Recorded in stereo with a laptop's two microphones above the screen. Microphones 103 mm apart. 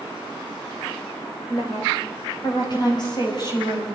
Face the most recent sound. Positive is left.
turn(degrees=45)  # may be behind; listen again after turning